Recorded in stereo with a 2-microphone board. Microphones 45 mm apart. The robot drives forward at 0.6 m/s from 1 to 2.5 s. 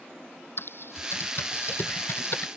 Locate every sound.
0.6 s typing on a keyboard: 60° left (ahead or behind); by 2.5 s 55° left (ahead or behind)